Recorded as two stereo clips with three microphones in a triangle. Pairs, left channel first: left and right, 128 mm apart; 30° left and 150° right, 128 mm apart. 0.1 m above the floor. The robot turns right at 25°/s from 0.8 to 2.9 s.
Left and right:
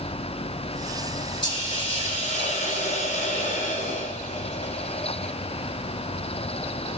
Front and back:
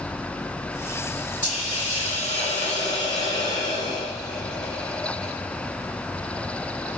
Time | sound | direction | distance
1.4 | a hiss | 40° left | 5 m